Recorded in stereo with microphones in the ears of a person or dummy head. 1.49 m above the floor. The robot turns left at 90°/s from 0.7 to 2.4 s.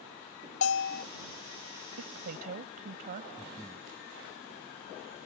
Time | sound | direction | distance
0.6 | a bell | 80° left | ?
2.0 | a woman speaking | 95° right | ?
3.4 | breathing | 10° left (ahead or behind) | ?